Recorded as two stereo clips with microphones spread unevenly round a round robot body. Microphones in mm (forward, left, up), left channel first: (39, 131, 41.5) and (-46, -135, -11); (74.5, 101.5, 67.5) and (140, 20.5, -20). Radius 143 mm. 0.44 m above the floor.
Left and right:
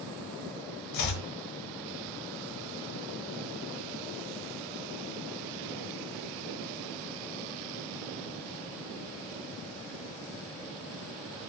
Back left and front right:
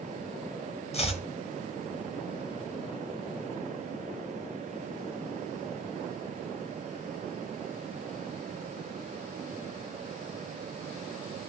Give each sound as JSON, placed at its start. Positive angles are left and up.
{"t": 0.9, "sound": "chopping", "azimuth_deg": 85, "distance_m": 1.3}